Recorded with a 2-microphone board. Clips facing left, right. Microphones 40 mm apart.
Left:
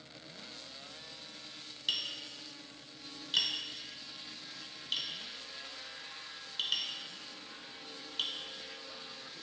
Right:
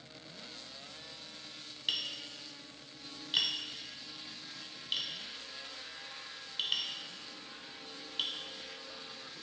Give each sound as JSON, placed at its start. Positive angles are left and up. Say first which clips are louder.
{"t": 1.9, "sound": "tapping", "louder": "even", "side_deg": -15, "distance_m": 0.7}